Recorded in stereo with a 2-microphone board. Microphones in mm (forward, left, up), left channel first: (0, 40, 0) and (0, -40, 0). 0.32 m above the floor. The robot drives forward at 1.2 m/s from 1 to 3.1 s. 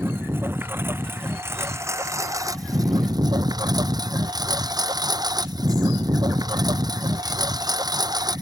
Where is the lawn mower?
30° right (ahead or behind); by 8.4 s 55° right (ahead or behind).